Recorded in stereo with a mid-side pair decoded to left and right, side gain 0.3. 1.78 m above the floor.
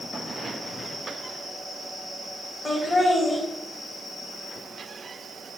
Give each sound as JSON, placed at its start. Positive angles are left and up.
{"t": 2.6, "sound": "laughter", "azimuth_deg": 50, "distance_m": 2.5}